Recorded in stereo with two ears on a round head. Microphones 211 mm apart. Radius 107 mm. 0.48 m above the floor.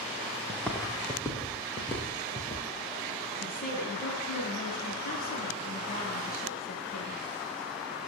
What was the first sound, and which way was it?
Footsteps, centre (ahead or behind).